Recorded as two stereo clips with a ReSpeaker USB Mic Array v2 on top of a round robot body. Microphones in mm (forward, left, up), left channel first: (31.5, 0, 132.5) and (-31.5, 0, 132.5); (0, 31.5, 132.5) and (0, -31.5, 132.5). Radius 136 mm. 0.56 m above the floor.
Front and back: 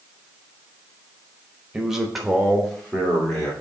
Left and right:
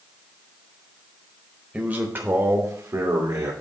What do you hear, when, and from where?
1.7 s a man speaking: 115° right, 1.3 m; by 3.5 s 70° right, 2 m